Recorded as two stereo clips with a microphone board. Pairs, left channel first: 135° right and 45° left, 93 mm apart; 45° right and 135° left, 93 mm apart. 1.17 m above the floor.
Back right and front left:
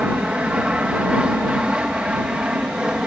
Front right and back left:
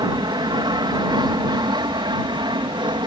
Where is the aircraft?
120° left; by 3.1 s 125° left.